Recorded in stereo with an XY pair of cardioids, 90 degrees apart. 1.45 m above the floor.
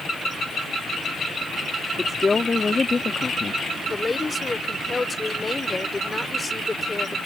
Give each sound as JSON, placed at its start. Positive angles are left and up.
{"t": 2.0, "sound": "a woman speaking", "azimuth_deg": 30}
{"t": 3.9, "sound": "a woman speaking", "azimuth_deg": 25}